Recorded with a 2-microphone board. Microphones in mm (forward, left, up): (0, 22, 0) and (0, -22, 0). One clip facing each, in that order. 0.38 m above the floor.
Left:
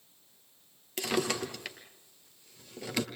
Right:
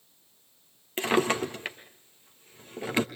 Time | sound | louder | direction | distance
1.0 | a drawer | right 6 dB | 30° right (ahead or behind) | 1.8 m